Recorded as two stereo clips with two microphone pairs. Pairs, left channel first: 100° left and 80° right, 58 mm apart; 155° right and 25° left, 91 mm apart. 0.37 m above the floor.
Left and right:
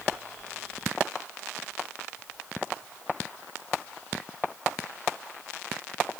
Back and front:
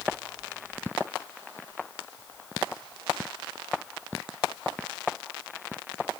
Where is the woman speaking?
I don't hear a woman speaking.